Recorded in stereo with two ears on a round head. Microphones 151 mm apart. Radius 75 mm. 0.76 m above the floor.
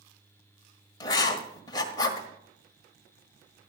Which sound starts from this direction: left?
Writing, at 1.0 s.